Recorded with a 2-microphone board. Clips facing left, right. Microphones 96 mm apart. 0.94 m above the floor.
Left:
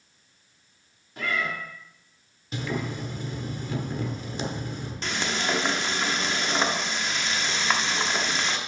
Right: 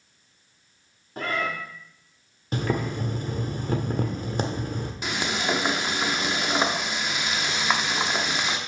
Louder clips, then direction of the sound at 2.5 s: Right 4 dB; 50° right (ahead or behind).